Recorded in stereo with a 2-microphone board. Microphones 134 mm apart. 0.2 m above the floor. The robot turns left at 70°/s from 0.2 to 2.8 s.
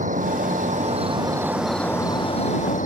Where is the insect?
75° right; by 2.9 s 100° left.